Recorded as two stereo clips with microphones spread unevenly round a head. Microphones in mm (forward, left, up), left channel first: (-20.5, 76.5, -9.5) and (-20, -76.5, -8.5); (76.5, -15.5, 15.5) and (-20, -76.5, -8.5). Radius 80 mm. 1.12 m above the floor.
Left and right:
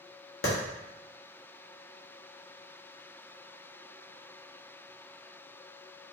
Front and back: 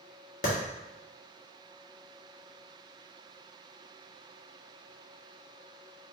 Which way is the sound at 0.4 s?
55° left.